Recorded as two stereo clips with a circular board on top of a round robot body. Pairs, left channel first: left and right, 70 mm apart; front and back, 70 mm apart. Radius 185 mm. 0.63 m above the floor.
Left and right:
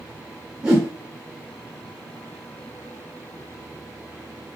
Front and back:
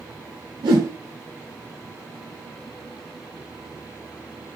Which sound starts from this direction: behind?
A whoosh, at 0.6 s.